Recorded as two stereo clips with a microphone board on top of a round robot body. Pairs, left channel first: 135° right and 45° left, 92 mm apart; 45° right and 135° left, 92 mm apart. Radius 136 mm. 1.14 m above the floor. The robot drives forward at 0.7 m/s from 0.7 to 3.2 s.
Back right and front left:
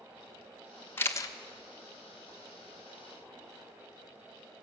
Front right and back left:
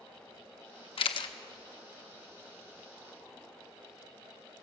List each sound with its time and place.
1.0 s a camera shutter: 65° right, 0.9 m; by 1.3 s 85° right, 0.8 m